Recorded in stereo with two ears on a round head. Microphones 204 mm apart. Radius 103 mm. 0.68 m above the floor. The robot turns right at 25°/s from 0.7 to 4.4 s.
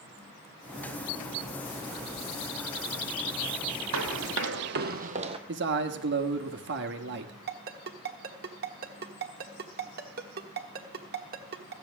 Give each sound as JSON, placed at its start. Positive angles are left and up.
{"t": 3.9, "sound": "running footsteps", "side_deg": -65, "distance_m": 1.4}
{"t": 5.5, "sound": "a man speaking", "side_deg": -50, "distance_m": 1.1}
{"t": 7.5, "sound": "a ringtone", "side_deg": -40, "distance_m": 1.2}